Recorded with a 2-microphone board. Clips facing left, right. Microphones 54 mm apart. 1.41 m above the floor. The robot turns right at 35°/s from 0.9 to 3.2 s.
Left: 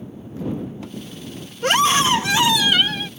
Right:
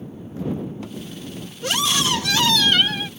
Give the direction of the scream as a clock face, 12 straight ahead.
8 o'clock.